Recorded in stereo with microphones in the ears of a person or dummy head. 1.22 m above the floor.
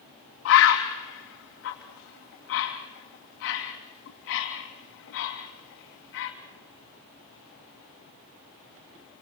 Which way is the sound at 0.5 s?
60° left (ahead or behind).